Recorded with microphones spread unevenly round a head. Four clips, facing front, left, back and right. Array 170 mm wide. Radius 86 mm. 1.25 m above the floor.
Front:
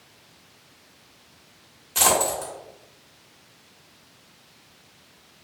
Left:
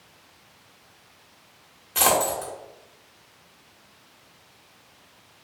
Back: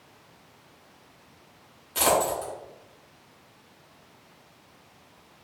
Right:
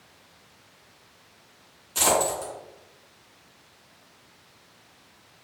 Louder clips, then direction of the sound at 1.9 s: Left 1 dB, front 1 dB; 60° left.